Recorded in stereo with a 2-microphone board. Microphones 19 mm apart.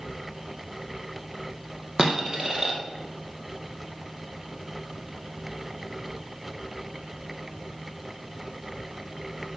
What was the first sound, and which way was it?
A dropped coin, 30° right (ahead or behind).